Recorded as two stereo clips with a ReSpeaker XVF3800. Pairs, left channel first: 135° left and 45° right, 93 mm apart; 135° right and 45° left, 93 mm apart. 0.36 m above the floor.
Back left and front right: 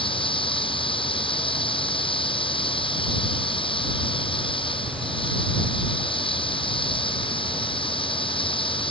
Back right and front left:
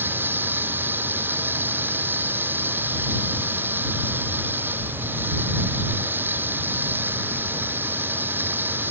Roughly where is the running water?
Behind left.